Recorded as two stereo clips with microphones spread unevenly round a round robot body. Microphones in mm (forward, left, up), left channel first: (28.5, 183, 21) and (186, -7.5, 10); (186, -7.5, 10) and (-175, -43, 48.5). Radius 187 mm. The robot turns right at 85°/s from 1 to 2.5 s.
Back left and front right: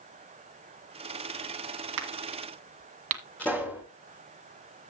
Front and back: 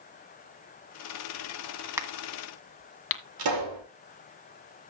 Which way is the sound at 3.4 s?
145° right.